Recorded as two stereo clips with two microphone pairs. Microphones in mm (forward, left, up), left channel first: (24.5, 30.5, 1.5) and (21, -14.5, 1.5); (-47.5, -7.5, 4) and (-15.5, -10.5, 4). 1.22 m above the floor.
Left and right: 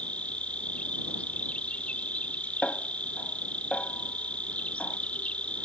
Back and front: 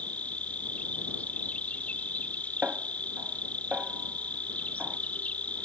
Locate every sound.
0.0 s an insect: 145° left
2.6 s a snare drum: 20° left